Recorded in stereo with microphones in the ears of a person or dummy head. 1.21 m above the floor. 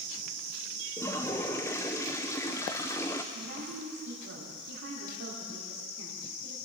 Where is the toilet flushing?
10° left (ahead or behind), 0.6 m.